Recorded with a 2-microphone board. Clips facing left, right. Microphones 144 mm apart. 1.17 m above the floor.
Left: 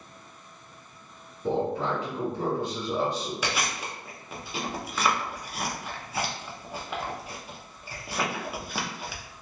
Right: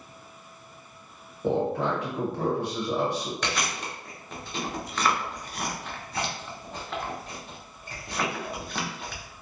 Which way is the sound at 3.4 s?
10° left (ahead or behind).